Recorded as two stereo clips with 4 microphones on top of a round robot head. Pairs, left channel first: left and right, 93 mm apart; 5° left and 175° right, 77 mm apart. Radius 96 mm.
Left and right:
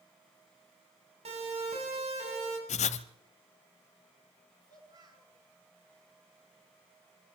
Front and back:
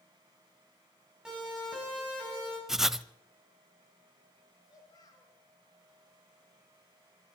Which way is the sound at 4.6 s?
45° right.